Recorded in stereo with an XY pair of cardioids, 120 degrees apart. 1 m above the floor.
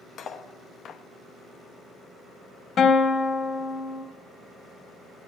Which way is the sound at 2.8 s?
45° left.